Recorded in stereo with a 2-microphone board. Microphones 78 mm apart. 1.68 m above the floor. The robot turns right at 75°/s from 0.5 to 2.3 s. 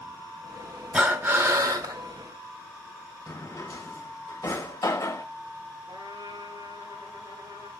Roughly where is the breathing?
Behind.